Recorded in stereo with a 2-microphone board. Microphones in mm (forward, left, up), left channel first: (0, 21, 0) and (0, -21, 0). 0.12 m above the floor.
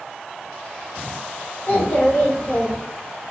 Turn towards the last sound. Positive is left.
turn(degrees=35)  # may be behind; listen again after turning